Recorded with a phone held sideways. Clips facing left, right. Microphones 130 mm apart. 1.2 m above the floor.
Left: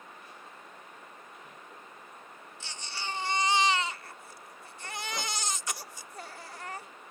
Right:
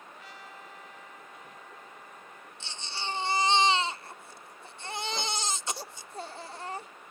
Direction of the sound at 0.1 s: 90° right.